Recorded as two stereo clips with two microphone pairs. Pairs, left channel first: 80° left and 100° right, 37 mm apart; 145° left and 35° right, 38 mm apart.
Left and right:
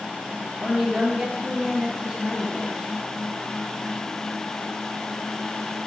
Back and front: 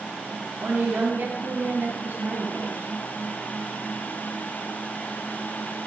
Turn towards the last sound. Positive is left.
turn(degrees=-25)